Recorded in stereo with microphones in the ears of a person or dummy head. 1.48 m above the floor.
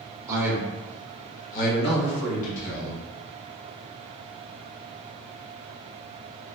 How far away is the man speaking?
About 0.7 m.